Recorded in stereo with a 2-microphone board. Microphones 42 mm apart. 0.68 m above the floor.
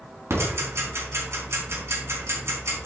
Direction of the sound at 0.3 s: 85° right.